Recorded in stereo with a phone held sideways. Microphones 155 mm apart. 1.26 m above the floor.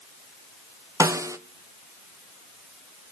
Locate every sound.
1.0 s a snare drum: 20° right (ahead or behind), 0.9 m